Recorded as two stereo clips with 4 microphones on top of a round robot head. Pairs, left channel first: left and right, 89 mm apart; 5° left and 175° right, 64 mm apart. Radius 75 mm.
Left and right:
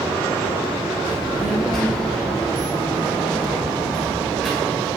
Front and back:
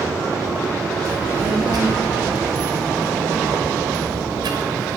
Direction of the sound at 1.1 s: 175° left.